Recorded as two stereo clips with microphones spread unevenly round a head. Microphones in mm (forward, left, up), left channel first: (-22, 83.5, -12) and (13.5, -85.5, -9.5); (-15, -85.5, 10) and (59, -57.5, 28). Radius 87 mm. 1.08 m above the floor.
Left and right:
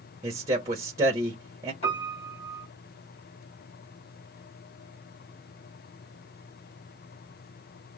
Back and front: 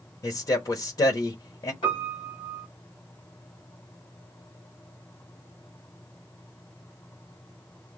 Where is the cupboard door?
I don't hear a cupboard door.